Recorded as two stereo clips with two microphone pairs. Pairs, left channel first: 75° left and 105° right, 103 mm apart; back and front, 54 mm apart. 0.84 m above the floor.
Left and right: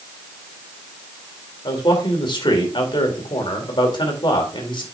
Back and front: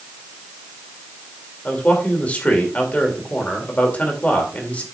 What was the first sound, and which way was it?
A man speaking, 120° left.